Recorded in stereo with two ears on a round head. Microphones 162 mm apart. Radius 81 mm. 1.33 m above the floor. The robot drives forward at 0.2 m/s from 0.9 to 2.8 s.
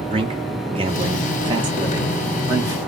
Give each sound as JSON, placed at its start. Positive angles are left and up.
{"t": 0.1, "sound": "a man speaking", "side_deg": -30, "distance_m": 0.6}